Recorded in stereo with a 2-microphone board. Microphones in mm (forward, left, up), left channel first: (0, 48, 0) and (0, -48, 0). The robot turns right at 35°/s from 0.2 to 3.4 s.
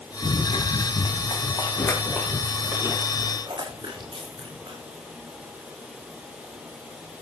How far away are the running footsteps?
About 9 m.